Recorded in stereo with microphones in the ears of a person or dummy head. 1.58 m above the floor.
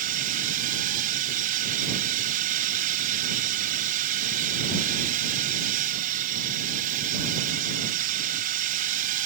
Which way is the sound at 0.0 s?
45° right (ahead or behind).